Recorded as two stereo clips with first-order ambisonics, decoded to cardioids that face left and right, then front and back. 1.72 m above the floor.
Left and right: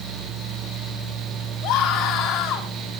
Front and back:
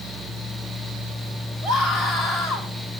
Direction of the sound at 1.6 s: 110° left.